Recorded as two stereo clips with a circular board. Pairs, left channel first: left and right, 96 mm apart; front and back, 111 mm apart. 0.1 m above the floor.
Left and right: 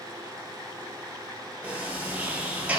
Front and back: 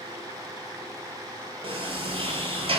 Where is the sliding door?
165° right, 0.5 m.